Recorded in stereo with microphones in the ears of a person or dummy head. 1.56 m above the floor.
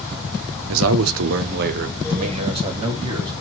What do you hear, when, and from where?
0.7 s a man speaking: 75° right (ahead or behind), 0.6 m; by 3.3 s 20° right (ahead or behind), 1.4 m